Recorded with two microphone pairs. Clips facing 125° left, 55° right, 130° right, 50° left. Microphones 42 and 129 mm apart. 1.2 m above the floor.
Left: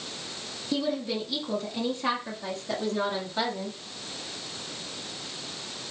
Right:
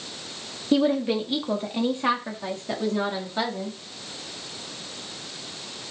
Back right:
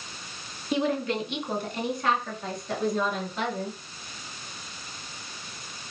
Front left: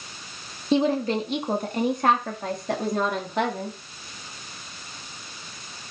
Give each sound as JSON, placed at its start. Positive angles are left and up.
{"t": 0.7, "sound": "a woman speaking", "azimuth_deg": -15, "distance_m": 1.9}